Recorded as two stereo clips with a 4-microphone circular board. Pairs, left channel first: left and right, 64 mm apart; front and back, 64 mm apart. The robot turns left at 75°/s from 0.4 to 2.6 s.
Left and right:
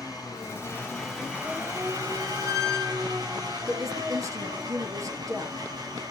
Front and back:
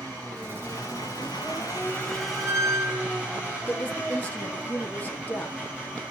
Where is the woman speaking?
65° right, 3 m.